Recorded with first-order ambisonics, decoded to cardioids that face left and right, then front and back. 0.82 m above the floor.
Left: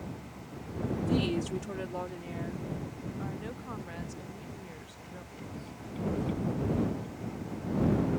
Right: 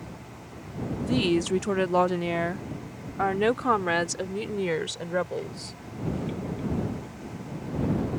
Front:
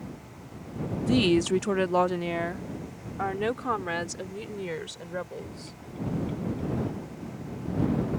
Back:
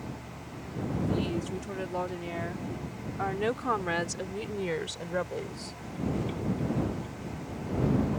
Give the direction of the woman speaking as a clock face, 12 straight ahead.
1 o'clock.